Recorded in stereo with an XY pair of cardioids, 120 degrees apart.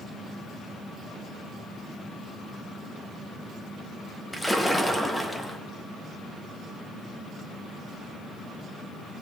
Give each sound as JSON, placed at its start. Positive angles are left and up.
{"t": 4.3, "sound": "a splash", "azimuth_deg": 5, "distance_m": 1.4}